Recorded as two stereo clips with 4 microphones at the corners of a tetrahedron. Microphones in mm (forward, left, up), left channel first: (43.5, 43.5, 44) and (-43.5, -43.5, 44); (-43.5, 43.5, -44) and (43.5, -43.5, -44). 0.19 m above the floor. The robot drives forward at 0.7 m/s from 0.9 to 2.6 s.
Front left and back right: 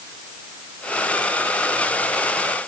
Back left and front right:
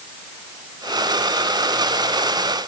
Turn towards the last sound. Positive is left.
No sound to turn to.